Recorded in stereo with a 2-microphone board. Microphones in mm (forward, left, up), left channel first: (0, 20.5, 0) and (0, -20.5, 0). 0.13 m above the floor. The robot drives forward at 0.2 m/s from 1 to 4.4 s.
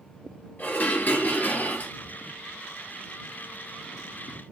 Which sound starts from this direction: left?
Dishes clattering, at 0.6 s.